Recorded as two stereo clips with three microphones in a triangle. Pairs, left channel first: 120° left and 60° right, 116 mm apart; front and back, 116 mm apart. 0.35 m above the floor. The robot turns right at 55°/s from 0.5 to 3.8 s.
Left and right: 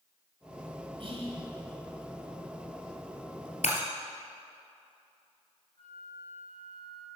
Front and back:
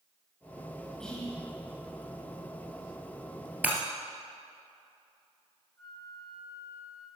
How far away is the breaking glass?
About 1.6 m.